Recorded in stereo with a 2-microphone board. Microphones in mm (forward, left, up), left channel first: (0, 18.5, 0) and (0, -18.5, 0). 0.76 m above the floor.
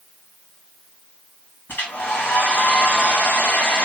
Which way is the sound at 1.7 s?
80° left.